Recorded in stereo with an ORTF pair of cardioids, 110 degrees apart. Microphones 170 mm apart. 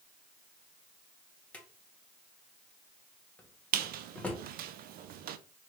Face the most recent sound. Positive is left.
turn(degrees=-65)